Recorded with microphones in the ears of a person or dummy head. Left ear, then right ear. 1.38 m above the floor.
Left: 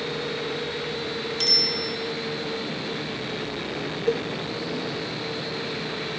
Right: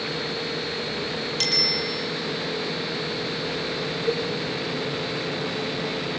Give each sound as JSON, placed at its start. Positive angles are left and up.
{"t": 1.4, "sound": "a bicycle bell", "side_deg": -15, "distance_m": 6.0}
{"t": 4.1, "sound": "a cowbell", "side_deg": 30, "distance_m": 1.5}